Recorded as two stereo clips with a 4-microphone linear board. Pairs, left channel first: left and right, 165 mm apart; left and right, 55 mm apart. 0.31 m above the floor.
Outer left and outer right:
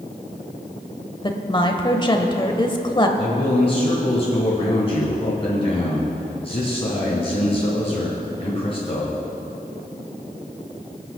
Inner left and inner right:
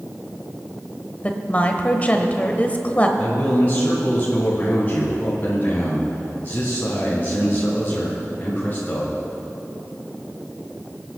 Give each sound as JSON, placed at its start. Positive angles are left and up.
{"t": 1.2, "sound": "a woman speaking", "side_deg": 30, "distance_m": 1.0}
{"t": 3.2, "sound": "a man speaking", "side_deg": 35, "distance_m": 2.5}